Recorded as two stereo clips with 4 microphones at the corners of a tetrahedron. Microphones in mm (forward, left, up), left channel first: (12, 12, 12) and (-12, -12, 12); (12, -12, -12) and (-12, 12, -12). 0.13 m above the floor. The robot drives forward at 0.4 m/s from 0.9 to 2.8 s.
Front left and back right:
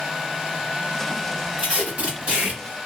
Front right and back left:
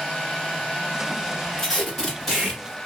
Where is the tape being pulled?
110° right, 1.9 m; by 2.8 s 125° right, 2 m.